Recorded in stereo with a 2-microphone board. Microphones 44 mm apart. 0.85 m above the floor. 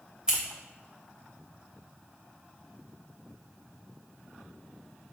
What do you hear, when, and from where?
0.3 s scissors: 15° right (ahead or behind), 2.5 m